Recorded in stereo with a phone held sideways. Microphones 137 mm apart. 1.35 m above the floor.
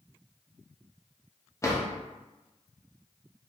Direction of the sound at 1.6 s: 25° left (ahead or behind).